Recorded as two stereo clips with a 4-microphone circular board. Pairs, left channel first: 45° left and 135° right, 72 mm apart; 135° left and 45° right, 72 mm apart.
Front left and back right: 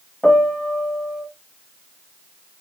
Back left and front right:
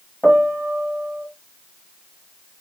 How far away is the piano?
About 1.6 m.